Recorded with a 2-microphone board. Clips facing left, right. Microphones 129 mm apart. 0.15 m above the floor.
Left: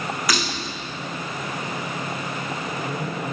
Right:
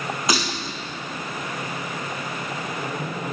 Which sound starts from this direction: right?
Breaking glass, at 0.3 s.